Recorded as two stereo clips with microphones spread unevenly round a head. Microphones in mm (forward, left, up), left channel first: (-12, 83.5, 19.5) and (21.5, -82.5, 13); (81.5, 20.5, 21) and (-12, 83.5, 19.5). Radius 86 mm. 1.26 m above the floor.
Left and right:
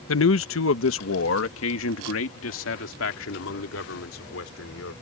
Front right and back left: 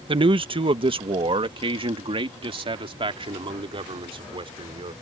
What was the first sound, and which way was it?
A man speaking, 105° left.